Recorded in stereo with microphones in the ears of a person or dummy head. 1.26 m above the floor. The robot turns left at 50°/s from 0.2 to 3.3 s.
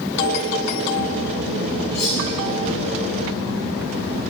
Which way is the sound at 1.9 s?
60° left (ahead or behind).